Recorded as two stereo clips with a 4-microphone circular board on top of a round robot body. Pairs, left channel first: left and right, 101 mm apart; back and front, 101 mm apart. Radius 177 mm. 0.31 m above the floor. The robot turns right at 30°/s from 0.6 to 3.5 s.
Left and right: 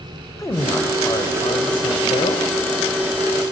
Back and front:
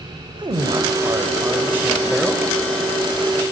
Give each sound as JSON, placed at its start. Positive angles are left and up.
{"t": 0.4, "sound": "a man speaking", "azimuth_deg": 35, "distance_m": 1.8}